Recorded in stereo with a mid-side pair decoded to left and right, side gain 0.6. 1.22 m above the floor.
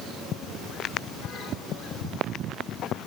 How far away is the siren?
I don't hear a siren.